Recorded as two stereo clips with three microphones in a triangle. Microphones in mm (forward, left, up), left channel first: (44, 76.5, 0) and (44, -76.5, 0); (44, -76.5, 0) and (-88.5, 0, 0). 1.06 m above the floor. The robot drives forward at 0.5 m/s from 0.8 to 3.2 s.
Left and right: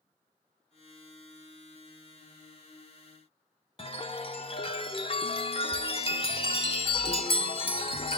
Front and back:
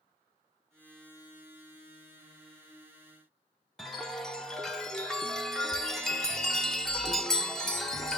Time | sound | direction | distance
3.8 | a chime | 55° left | 0.7 m